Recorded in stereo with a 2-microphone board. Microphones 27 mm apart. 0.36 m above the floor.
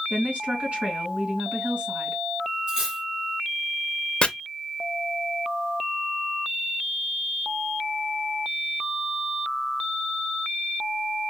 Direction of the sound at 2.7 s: 30° right (ahead or behind).